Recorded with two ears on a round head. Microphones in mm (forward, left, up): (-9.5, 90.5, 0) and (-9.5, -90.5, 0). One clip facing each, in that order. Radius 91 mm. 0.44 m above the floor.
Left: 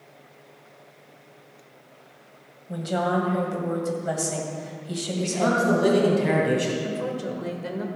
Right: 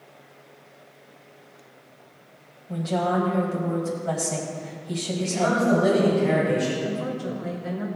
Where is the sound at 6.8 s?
45° left (ahead or behind), 1.7 m.